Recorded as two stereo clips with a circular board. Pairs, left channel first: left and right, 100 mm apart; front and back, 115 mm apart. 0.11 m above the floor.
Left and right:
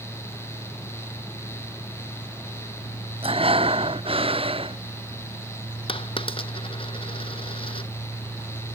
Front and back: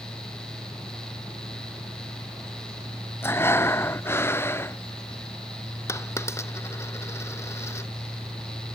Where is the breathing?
70° right.